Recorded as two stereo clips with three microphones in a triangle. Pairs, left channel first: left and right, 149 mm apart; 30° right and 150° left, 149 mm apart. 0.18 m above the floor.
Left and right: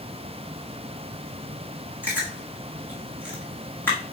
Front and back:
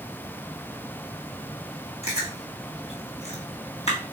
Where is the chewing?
10° left, 1.8 m.